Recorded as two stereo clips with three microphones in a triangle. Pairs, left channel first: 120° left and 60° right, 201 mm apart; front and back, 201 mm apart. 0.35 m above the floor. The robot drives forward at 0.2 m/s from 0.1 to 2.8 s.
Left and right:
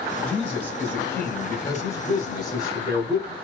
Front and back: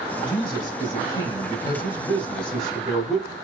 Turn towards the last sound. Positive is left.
turn(degrees=85)